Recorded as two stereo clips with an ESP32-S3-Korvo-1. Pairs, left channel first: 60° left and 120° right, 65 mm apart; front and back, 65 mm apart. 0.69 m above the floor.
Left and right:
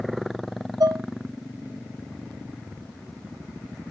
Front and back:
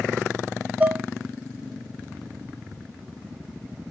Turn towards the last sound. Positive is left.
turn(degrees=-110)